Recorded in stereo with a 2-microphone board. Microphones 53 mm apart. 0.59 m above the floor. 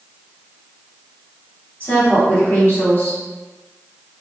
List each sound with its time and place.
1.8 s a woman speaking: 30° left (ahead or behind), 1.9 m